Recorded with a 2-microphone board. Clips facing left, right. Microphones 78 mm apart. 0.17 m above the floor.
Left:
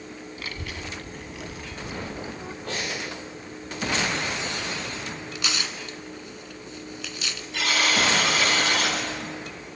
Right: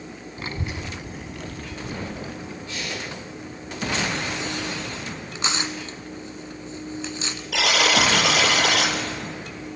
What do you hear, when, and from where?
0.4 s a child speaking: 30° right (ahead or behind), 0.9 m; by 2.5 s 35° left (ahead or behind), 1.1 m
2.6 s breathing: 50° left (ahead or behind), 9 m
5.3 s tearing paper: 25° right (ahead or behind), 1.8 m
7.5 s a buzzer: 70° right (ahead or behind), 4.5 m